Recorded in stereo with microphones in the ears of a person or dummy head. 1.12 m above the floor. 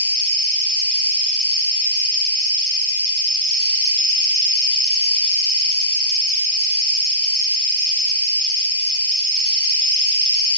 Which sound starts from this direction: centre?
An insect, at 0.0 s.